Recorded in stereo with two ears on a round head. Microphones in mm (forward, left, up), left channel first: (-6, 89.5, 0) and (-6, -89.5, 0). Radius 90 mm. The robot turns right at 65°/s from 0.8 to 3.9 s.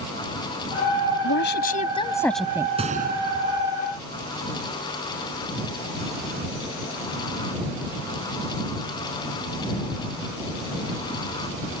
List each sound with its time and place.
1.2 s a woman speaking: 105° left; by 2.7 s 160° right
2.8 s a gunshot: 30° right (ahead or behind); by 3.7 s 85° right